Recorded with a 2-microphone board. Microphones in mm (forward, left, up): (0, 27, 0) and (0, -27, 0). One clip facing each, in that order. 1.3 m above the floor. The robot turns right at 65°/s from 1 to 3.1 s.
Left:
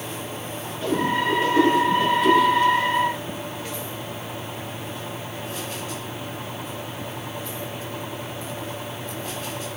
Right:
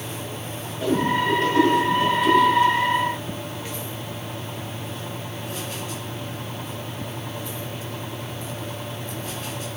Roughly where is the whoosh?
Centre.